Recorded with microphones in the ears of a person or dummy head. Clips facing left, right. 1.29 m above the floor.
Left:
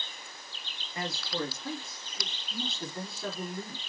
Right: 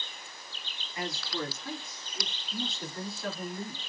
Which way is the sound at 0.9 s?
30° left (ahead or behind).